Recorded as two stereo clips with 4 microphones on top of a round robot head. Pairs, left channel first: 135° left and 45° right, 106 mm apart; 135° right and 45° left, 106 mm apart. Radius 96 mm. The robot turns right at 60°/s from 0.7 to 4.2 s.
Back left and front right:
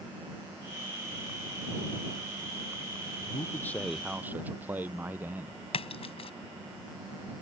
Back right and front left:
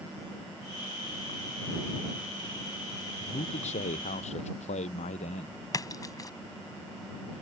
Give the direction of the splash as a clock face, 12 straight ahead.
6 o'clock.